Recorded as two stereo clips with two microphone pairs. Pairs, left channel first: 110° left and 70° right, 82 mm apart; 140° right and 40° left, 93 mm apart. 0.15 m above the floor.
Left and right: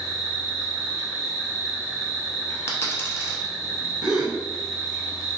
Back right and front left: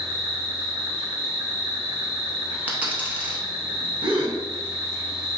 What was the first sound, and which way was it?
An insect, 30° left.